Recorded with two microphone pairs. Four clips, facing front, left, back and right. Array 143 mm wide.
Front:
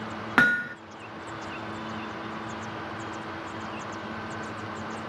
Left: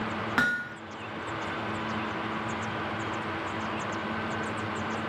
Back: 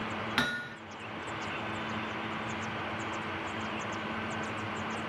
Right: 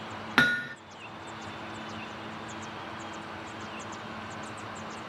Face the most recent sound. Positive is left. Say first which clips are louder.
# right 4 dB, front 13 dB
turn(degrees=-20)